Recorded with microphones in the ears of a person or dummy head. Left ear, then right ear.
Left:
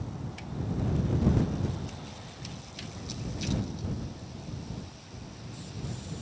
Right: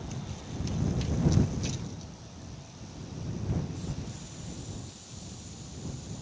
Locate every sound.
Only background noise.